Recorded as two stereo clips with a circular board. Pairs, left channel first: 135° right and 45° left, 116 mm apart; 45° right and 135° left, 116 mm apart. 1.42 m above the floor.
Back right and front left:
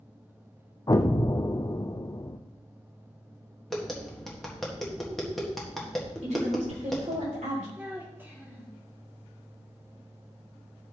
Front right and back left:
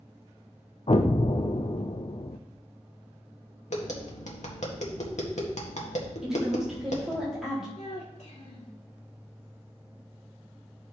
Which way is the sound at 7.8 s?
30° right.